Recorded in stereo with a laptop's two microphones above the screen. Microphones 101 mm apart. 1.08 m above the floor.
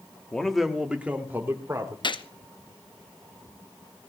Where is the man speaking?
10° left (ahead or behind), 1.9 m; by 1.9 s 25° right (ahead or behind), 3 m.